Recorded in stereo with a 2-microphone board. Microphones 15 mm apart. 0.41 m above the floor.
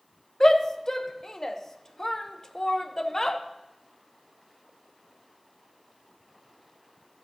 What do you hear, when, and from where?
0.4 s a shout: 25° left (ahead or behind), 0.8 m